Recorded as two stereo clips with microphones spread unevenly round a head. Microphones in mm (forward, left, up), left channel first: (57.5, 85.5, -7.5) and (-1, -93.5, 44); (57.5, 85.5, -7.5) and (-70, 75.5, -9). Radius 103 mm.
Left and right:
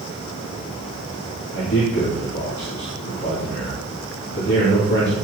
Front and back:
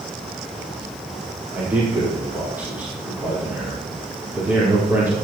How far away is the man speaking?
About 5 m.